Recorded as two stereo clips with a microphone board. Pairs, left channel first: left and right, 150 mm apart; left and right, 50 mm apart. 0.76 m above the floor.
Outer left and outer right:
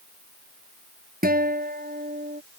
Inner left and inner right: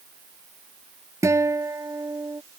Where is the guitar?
80° right.